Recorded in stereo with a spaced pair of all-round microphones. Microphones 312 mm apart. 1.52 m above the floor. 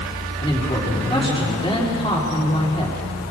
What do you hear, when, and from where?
0.4 s a man speaking: 20° left (ahead or behind), 4 m